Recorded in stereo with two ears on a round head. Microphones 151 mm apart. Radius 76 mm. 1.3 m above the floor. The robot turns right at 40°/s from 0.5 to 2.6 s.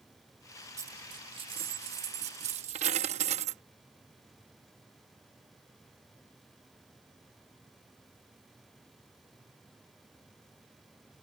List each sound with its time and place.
0.8 s a dropped coin: 155° right; by 3.6 s 80° right